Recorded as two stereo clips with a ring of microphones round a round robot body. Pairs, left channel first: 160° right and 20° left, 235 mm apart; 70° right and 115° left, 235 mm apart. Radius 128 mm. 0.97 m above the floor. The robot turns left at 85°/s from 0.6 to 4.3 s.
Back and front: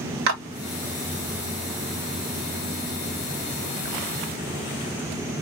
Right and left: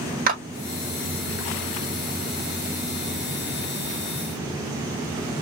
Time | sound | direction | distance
0.3 | a clap | 55° left | 2 m